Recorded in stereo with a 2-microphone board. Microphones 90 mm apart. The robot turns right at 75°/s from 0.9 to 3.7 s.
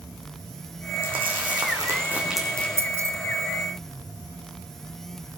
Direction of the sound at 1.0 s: 75° right (ahead or behind).